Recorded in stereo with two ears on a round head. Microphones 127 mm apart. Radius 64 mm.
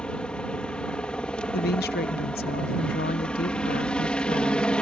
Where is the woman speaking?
75° left (ahead or behind).